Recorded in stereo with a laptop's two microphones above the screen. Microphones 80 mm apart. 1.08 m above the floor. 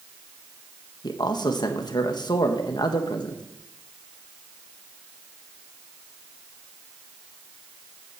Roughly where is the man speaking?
Left.